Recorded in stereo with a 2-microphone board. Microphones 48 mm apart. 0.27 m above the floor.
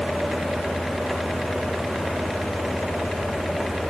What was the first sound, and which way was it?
Only background noise.